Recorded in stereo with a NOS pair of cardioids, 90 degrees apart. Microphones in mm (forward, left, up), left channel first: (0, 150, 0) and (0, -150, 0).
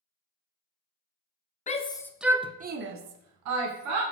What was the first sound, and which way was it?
A shout, 25° left.